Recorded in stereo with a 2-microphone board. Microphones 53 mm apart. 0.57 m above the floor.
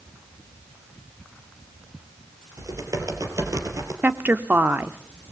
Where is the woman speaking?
35° right (ahead or behind), 1.1 m.